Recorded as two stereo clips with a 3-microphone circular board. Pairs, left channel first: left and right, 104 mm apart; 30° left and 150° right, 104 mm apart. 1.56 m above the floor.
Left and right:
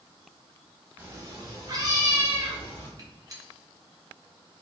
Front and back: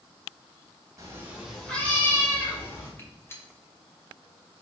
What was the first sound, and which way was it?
A cat meowing, 145° right.